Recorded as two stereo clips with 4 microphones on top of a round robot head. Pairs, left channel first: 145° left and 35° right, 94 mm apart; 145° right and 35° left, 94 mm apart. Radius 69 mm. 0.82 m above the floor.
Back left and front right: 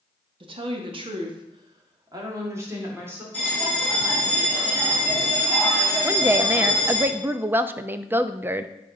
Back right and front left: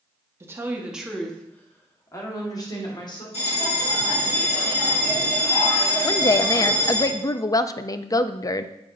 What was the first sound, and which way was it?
A woman speaking, 20° right.